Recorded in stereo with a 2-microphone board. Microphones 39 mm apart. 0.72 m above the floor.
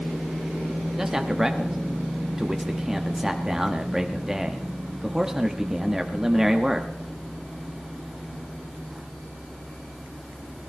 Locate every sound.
1.0 s a man speaking: 10° right (ahead or behind), 0.9 m